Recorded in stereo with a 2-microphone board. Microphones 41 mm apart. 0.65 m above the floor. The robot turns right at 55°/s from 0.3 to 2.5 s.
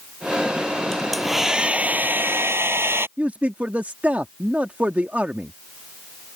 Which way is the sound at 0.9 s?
165° left.